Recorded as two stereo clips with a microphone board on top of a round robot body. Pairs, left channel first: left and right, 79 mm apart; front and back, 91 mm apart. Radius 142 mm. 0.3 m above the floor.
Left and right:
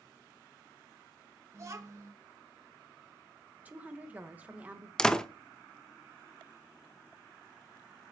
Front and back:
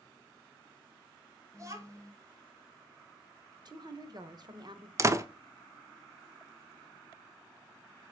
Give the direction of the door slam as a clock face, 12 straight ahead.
7 o'clock.